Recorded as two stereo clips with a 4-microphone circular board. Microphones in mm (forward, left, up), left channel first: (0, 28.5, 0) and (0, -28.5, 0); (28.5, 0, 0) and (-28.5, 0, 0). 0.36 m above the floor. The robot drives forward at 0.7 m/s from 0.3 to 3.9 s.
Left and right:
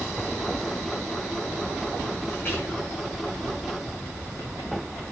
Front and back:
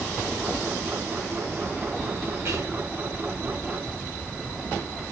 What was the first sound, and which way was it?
Whispering, 155° left.